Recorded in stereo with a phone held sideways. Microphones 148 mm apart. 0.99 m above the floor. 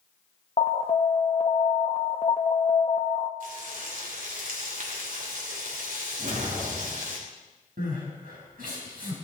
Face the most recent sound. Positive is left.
turn(degrees=-85)